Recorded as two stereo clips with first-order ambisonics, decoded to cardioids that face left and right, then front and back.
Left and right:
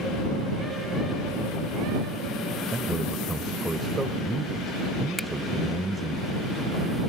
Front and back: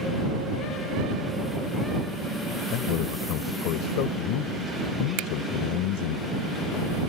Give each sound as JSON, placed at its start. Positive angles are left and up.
{"t": 2.7, "sound": "a man speaking", "azimuth_deg": -10}
{"t": 5.2, "sound": "a finger snap", "azimuth_deg": 175}